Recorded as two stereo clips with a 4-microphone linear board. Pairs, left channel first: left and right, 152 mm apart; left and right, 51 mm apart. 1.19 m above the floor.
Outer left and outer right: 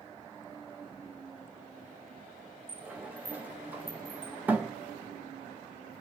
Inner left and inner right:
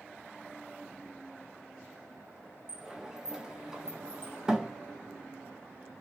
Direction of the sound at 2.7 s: 10° right (ahead or behind).